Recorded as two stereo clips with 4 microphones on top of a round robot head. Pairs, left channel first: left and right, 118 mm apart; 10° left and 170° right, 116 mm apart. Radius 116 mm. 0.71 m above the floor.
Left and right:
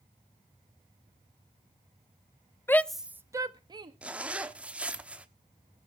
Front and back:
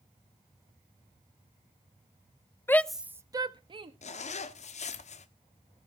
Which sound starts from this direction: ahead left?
A shout, at 2.7 s.